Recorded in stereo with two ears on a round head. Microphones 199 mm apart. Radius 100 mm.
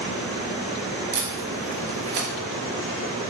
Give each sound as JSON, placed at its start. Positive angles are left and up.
{"t": 1.1, "sound": "tape being pulled", "side_deg": -45, "distance_m": 1.1}